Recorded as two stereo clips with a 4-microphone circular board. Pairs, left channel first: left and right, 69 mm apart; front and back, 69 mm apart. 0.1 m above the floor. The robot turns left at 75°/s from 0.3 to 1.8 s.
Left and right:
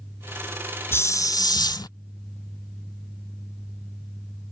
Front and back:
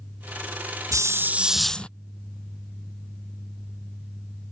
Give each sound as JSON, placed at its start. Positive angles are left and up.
{"t": 0.9, "sound": "a hiss", "azimuth_deg": 140}